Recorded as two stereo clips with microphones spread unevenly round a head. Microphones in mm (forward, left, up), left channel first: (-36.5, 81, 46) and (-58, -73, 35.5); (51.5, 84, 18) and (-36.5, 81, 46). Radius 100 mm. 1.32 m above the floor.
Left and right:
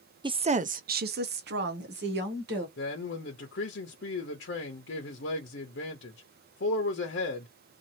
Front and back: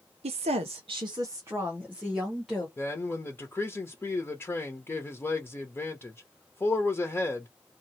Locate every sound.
0.2 s a woman speaking: 160° right, 0.5 m; by 2.7 s 85° right, 1.3 m
2.8 s a man speaking: 70° left, 0.8 m